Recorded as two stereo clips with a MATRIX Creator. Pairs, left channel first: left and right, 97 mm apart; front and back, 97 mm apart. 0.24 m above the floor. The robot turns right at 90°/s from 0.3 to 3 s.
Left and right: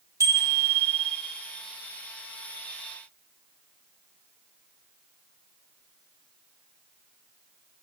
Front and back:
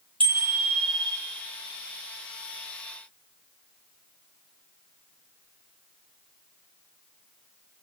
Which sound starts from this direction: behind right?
A bicycle bell, at 0.2 s.